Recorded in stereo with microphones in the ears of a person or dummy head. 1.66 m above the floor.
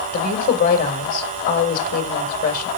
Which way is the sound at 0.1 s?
50° left (ahead or behind).